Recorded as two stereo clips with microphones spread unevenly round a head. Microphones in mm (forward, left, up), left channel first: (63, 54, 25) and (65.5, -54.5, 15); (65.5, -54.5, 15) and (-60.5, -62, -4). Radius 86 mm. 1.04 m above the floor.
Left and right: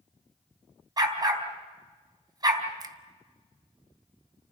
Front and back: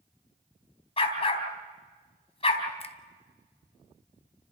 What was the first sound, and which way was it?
A dog barking, 35° right.